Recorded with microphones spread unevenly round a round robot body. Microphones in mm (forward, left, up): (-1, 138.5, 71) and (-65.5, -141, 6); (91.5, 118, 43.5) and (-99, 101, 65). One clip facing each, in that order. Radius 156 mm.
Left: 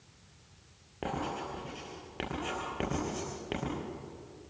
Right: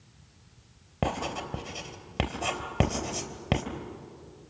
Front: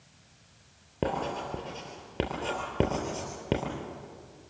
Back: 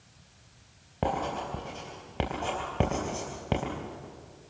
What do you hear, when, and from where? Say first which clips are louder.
1.0 s writing: right 4 dB, even; 70° right, 3 m